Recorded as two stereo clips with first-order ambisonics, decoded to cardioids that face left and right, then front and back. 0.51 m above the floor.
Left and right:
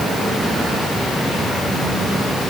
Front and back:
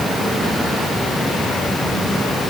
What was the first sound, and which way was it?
Only background noise.